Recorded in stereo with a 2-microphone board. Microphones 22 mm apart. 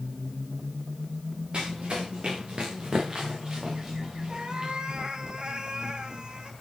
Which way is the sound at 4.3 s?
45° right (ahead or behind).